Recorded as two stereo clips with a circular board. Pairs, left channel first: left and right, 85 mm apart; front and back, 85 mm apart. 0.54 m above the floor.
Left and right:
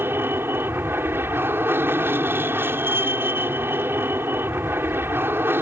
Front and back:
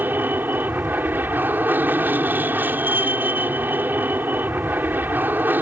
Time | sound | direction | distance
0.0 | an aircraft | 130° right | ?